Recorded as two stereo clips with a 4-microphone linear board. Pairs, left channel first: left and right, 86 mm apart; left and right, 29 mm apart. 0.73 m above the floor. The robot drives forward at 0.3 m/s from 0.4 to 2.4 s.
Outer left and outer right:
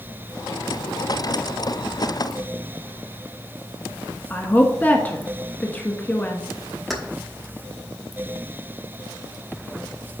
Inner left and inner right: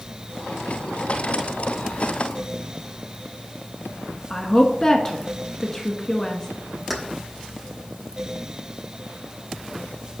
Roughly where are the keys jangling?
Centre.